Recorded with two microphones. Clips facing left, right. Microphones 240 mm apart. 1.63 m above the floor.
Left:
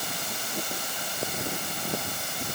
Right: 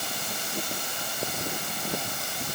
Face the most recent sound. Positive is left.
No sound to turn to.